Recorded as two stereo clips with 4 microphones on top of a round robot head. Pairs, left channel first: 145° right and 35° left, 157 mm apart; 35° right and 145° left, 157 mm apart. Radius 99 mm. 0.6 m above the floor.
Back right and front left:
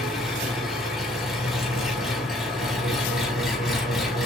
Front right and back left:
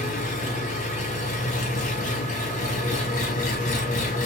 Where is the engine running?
50° right, 1.3 m.